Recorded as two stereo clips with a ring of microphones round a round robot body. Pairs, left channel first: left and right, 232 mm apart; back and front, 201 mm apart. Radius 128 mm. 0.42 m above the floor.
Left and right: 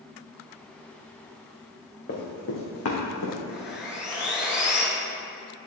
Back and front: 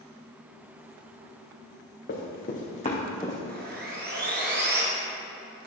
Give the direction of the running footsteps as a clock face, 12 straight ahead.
7 o'clock.